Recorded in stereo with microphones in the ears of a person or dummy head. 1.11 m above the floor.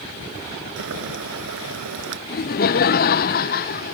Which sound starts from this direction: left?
Laughter, at 2.3 s.